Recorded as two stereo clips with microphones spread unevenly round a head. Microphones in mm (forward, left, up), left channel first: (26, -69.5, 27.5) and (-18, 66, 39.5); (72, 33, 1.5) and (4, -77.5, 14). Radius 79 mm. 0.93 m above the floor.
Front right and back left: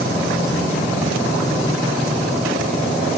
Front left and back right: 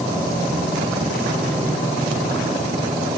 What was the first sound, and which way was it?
Only background noise.